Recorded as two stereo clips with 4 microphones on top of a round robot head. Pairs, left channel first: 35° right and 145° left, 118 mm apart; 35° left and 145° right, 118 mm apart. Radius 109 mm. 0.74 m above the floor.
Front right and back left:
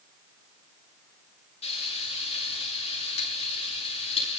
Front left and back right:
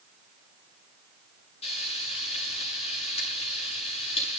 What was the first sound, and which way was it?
Frying, straight ahead.